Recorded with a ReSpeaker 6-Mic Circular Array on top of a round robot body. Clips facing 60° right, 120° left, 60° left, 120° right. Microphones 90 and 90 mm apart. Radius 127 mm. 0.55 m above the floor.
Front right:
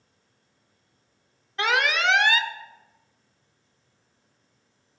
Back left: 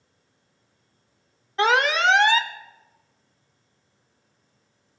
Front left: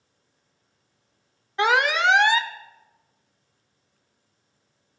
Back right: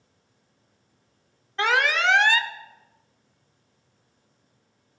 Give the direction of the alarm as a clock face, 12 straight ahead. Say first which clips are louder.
Back left 4 dB, front left 2 dB; 8 o'clock.